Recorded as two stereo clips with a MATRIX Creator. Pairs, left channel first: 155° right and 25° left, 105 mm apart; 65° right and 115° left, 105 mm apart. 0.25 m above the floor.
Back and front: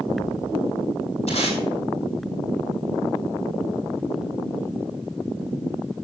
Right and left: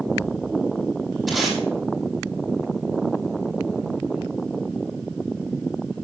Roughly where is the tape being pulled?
Behind right.